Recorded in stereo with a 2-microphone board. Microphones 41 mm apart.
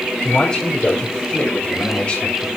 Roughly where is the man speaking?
Left.